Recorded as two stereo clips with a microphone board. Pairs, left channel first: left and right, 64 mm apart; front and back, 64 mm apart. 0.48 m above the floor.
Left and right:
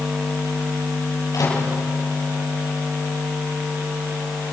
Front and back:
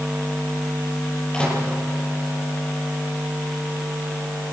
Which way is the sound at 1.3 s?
75° left.